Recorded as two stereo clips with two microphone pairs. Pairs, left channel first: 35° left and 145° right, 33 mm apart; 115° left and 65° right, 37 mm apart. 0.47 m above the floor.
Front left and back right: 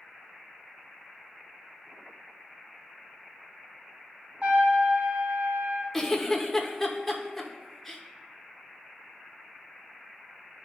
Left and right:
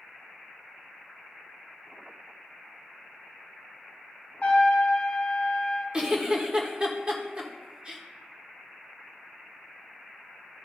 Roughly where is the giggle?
Ahead right.